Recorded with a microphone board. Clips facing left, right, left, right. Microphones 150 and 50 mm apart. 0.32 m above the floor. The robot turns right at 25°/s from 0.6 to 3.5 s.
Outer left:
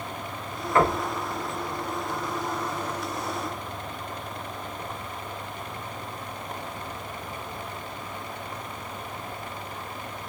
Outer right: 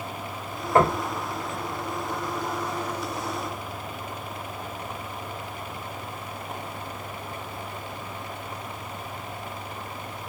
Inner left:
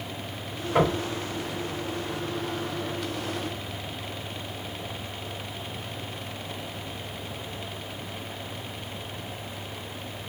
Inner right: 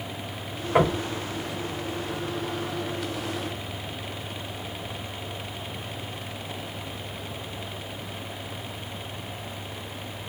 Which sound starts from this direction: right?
Knocking, at 0.8 s.